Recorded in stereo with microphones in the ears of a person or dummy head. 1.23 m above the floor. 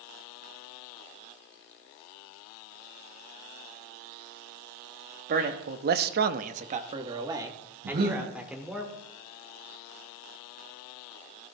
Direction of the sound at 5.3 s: 40° right (ahead or behind).